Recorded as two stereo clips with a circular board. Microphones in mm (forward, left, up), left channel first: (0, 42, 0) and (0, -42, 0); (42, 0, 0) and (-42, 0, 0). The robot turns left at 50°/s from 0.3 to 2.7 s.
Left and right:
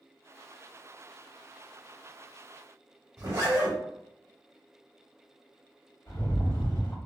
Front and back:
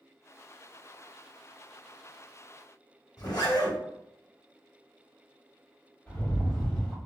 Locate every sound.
3.2 s a zipper: 40° right, 1.1 m
6.1 s a rattle: 65° left, 1.4 m